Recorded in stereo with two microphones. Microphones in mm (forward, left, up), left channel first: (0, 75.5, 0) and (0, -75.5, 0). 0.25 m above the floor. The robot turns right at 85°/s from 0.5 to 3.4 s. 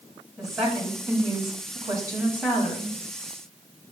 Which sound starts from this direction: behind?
A woman speaking, at 0.4 s.